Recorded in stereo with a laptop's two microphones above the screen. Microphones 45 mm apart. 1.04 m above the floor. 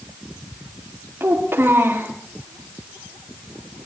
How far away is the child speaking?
About 1.9 m.